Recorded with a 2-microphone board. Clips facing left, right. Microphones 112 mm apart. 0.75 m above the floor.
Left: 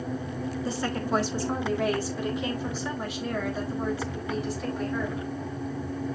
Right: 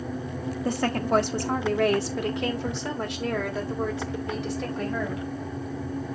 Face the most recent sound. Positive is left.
turn(degrees=-80)